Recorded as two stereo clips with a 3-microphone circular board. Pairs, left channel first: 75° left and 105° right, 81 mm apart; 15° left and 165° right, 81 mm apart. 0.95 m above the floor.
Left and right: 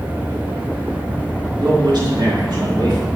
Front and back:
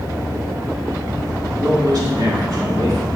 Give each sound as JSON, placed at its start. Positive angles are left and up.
{"t": 1.6, "sound": "a man speaking", "azimuth_deg": -130, "distance_m": 1.6}